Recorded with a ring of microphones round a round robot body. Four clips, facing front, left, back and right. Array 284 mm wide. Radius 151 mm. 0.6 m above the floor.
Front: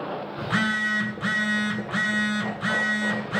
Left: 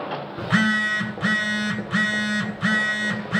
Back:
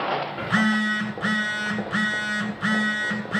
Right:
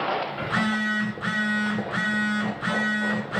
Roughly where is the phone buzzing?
Left.